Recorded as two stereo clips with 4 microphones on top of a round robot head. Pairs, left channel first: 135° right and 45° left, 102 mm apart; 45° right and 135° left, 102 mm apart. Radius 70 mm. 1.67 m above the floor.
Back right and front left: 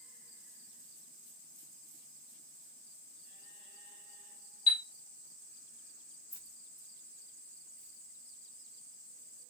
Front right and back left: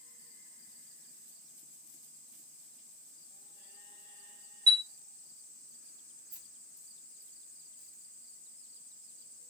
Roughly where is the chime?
Behind.